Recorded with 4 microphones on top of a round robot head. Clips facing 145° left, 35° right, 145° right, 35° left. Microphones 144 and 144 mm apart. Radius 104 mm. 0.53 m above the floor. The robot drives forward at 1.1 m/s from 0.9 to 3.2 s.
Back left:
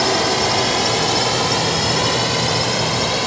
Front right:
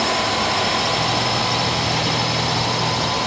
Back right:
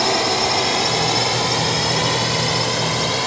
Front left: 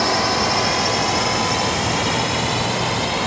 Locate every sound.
0.0 s a drone: 160° left; by 3.3 s 170° left